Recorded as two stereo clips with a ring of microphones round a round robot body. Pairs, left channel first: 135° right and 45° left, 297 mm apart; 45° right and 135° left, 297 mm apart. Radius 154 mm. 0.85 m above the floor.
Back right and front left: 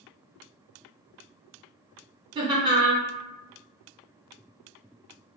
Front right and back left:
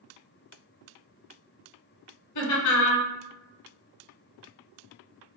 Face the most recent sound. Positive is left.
turn(degrees=-30)